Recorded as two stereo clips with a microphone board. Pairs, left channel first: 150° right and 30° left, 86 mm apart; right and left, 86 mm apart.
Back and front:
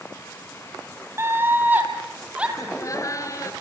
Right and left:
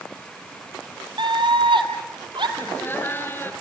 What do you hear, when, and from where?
1.2 s a scream: 85° left, 3.5 m; by 2.5 s 105° left, 4 m
2.6 s laughter: 140° right, 1.8 m